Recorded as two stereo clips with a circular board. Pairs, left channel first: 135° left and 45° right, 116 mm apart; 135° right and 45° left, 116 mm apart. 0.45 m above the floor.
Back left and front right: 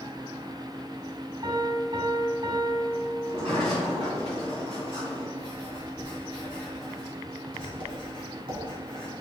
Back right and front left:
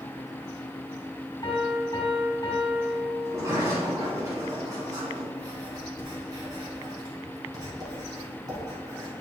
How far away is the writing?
About 2.5 m.